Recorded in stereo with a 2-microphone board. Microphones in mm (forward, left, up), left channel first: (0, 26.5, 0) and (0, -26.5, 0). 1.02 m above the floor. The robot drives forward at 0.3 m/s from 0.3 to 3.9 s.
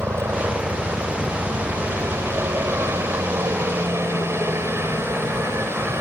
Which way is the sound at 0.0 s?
55° right (ahead or behind).